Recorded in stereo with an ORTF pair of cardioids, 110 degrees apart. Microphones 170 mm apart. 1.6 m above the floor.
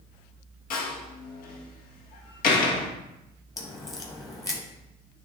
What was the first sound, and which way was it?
A door slam, 60° left.